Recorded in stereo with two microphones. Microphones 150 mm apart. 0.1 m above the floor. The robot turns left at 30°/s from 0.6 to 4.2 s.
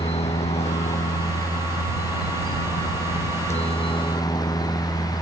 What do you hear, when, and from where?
0.0 s a helicopter: 135° left; by 5.2 s 25° left